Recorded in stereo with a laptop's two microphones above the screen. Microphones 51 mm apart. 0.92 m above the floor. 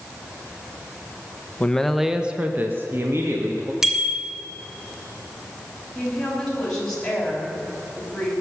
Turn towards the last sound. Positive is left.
turn(degrees=10)  # may be behind; listen again after turning